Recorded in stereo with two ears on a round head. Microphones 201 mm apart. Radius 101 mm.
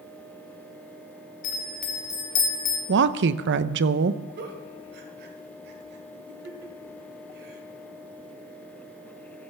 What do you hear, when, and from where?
1.4 s a bell: 90° left, 2.5 m
2.9 s a woman speaking: 50° right (ahead or behind), 0.6 m
4.4 s a giggle: 45° right (ahead or behind), 2.0 m